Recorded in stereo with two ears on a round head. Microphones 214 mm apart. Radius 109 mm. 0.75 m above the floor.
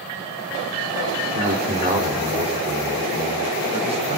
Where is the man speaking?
35° right (ahead or behind), 2 m; by 4.2 s 25° right (ahead or behind), 5 m.